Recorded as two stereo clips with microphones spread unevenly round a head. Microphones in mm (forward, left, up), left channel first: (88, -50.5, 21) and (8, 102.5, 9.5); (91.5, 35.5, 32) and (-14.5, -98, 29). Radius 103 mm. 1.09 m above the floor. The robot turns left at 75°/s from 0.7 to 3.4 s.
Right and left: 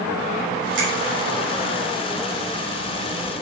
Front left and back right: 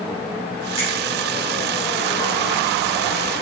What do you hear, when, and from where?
0.8 s a finger snap: 110° left, 4 m; by 0.9 s 100° left, 4 m